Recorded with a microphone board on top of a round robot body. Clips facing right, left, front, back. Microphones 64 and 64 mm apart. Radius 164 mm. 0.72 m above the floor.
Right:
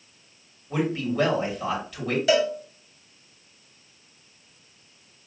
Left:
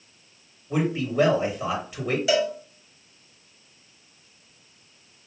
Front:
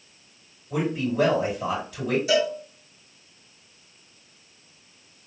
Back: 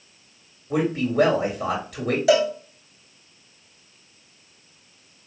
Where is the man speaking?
155° left, 2 m.